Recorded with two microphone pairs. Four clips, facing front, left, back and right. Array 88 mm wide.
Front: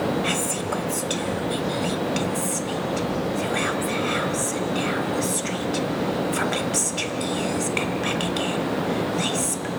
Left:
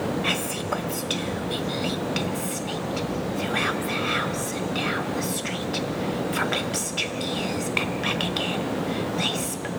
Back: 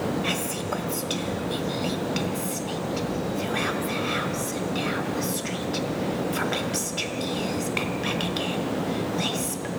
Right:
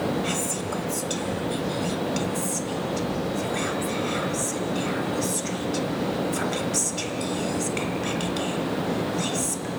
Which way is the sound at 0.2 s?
55° left.